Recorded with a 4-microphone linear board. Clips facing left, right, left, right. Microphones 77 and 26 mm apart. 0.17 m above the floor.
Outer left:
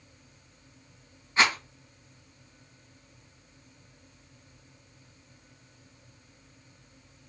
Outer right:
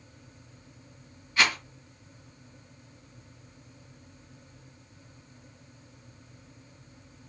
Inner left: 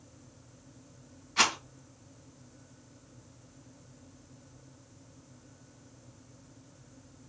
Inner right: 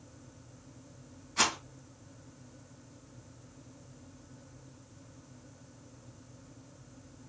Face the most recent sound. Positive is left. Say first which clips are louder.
# outer left 2 dB, inner left 3 dB
turn(degrees=30)  # may be behind; listen again after turning